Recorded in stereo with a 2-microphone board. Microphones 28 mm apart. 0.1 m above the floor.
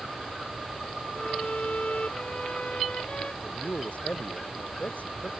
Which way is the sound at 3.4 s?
65° left (ahead or behind).